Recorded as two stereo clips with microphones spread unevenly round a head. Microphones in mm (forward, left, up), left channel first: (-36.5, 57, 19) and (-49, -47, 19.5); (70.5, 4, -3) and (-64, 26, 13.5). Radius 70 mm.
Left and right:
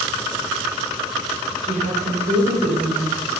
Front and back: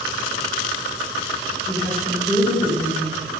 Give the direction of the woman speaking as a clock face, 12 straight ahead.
3 o'clock.